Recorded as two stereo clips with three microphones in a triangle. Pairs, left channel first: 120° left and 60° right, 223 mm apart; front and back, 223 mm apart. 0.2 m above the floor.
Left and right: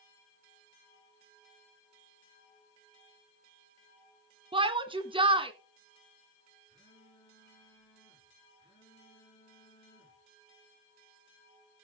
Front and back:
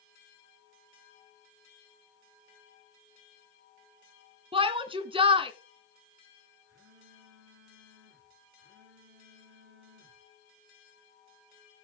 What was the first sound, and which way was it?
A shout, 120° right.